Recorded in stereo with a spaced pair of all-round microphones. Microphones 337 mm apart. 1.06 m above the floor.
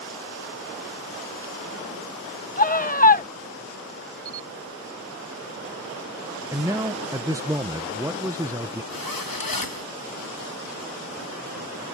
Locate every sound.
2.6 s a scream: 25° left (ahead or behind)
4.2 s a camera shutter: 15° left (ahead or behind)
6.5 s a man speaking: 10° right (ahead or behind)
8.9 s a zipper: 80° left